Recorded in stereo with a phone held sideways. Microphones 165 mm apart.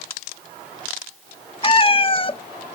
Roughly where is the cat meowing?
Left.